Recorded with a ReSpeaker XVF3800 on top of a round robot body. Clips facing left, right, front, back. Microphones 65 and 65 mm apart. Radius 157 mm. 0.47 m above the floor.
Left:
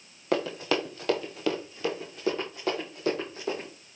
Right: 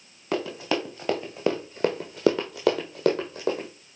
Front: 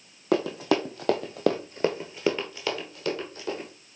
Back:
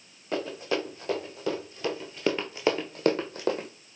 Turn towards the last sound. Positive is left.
turn(degrees=-140)